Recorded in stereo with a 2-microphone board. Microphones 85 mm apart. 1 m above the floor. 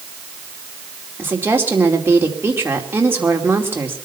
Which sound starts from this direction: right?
A woman speaking, at 1.2 s.